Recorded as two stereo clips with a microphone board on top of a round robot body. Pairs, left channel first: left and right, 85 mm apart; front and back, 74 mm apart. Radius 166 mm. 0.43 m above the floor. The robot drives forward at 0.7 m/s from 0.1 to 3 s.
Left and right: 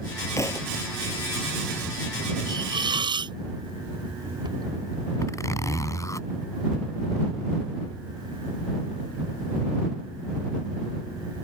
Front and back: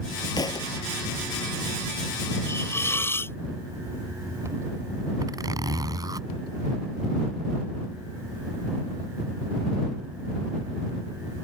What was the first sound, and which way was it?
A thud, 35° left.